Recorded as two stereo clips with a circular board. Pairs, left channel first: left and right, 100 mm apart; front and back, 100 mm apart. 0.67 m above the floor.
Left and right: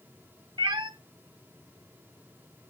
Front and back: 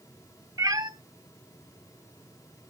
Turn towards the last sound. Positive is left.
turn(degrees=-130)